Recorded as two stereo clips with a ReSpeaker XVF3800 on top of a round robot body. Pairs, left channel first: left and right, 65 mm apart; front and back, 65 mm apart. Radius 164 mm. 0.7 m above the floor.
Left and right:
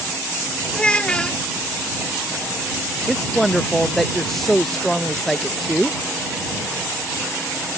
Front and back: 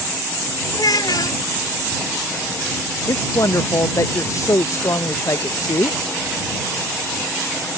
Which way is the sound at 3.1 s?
5° left.